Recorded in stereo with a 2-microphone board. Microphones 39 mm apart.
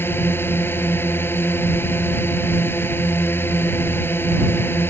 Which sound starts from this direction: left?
A drone, at 0.0 s.